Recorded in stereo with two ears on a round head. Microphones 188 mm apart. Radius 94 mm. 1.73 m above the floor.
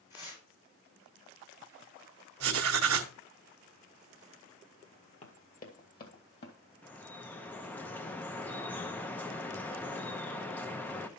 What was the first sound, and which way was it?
Tearing paper, 20° left (ahead or behind).